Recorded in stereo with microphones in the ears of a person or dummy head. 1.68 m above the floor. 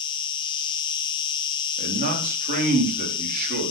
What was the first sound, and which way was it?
An insect, 20° left (ahead or behind).